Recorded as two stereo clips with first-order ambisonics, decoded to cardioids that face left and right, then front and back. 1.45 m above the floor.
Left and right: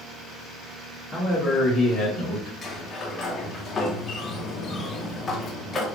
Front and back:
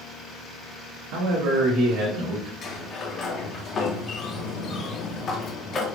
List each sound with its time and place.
1.1 s a man speaking: straight behind, 1.1 m; by 2.5 s 115° left, 1.1 m
2.6 s a sliding door: 40° left, 0.6 m